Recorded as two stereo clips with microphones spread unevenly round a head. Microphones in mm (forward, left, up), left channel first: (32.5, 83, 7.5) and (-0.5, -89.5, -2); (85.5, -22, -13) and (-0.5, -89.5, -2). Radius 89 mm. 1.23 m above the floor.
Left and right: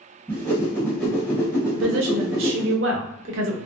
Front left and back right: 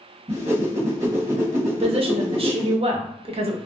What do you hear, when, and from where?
0.3 s a whoosh: 160° left, 1.3 m
1.7 s a woman speaking: 110° right, 0.9 m